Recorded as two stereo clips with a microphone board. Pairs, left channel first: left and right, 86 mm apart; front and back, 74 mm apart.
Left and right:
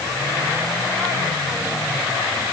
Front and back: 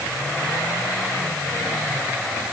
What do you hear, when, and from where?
Only background noise.